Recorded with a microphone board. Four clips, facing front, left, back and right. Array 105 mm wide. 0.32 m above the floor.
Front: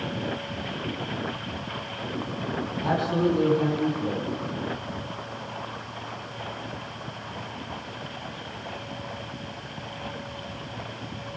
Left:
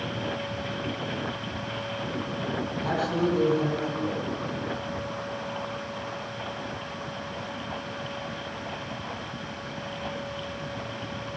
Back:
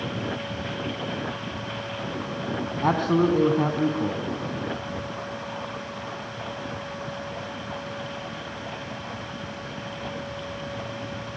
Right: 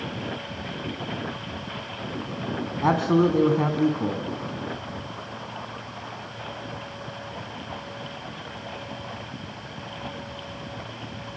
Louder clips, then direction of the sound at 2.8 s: Right 7 dB, back 3 dB; 125° right.